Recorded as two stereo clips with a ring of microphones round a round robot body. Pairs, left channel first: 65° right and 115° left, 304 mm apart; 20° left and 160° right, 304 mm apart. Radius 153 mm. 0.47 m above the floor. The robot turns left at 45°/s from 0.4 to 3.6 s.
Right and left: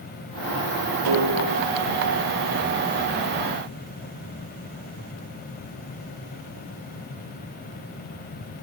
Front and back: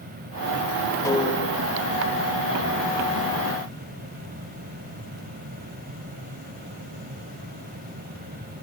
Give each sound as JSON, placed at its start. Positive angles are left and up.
{"t": 1.1, "sound": "a snare drum", "azimuth_deg": 105, "distance_m": 9.5}